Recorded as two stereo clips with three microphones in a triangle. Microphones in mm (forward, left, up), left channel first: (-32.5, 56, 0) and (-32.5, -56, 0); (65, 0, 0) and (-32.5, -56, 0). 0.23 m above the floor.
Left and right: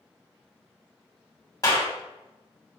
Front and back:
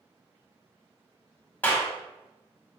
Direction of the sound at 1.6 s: 85° left.